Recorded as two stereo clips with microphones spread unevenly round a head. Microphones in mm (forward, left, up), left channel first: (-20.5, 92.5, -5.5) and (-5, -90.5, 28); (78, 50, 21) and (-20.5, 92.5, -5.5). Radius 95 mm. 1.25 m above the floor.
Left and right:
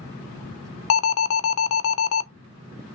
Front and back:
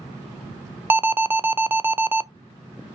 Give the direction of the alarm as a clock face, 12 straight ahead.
9 o'clock.